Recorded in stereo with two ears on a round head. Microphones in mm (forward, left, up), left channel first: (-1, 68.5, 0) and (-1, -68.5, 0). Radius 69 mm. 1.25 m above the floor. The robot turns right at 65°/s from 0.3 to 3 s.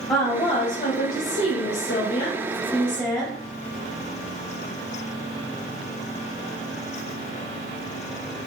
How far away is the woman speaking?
About 0.7 m.